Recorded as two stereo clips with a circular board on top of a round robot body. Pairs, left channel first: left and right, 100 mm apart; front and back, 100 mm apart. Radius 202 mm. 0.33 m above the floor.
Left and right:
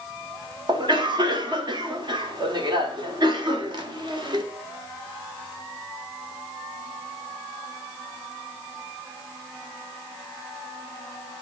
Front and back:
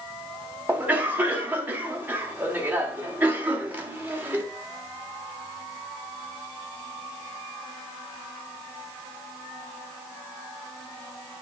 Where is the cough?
110° right, 1.8 m.